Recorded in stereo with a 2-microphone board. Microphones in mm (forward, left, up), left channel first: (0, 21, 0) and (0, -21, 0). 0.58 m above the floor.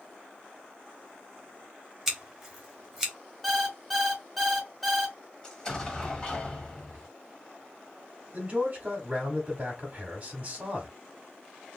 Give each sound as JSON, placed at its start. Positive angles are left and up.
{"t": 2.1, "sound": "scissors", "side_deg": -10, "distance_m": 1.3}
{"t": 3.4, "sound": "an alarm clock", "side_deg": 0, "distance_m": 0.9}
{"t": 5.4, "sound": "an explosion", "side_deg": 20, "distance_m": 1.1}
{"t": 8.3, "sound": "a man speaking", "side_deg": -30, "distance_m": 1.1}